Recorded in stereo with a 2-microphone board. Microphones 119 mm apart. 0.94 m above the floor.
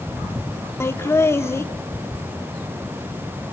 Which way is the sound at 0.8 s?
20° left (ahead or behind).